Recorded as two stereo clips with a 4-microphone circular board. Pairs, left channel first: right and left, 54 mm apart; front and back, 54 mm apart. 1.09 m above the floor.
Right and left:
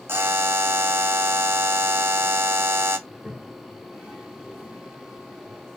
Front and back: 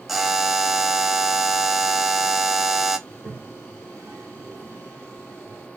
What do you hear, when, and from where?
0.1 s a buzzer: 95° left, 0.6 m
3.1 s a toilet flushing: 165° left, 1.6 m